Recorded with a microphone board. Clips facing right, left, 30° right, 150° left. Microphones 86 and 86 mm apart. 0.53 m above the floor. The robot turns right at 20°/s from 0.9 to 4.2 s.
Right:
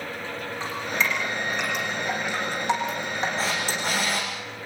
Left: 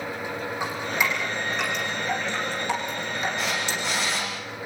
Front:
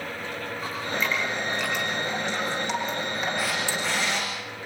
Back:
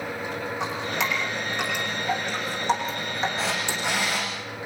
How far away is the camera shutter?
About 10 m.